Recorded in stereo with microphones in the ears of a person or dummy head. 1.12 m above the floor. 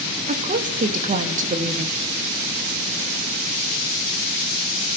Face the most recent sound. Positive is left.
turn(degrees=-40)  # may be behind; listen again after turning